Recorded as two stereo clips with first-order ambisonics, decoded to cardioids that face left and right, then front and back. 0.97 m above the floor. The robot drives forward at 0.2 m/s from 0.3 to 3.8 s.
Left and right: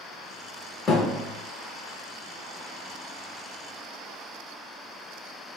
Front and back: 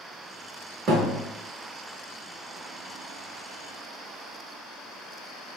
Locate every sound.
0.9 s a thud: 150° left, 0.9 m